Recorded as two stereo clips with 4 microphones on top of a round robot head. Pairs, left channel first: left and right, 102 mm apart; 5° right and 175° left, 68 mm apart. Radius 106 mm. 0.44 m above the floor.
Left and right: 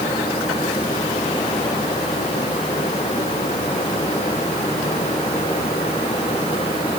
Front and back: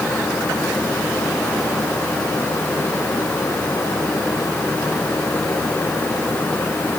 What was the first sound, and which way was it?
Only background noise.